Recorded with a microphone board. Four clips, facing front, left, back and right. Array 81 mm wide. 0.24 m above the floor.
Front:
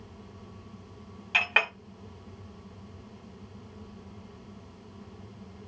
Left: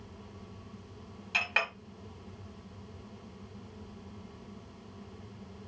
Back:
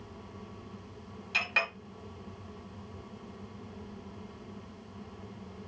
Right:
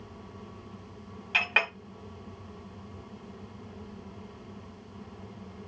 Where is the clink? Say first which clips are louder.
Right 4 dB, front 5 dB; 25° right, 1.2 m.